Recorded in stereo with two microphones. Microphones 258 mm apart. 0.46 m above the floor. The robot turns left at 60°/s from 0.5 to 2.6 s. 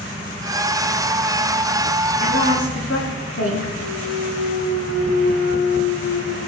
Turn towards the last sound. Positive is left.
turn(degrees=65)  # may be behind; listen again after turning